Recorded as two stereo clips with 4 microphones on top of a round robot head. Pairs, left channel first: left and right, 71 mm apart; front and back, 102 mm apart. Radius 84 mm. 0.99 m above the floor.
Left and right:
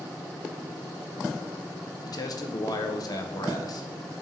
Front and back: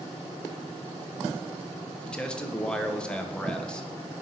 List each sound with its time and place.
2.0 s a man speaking: 80° left, 0.9 m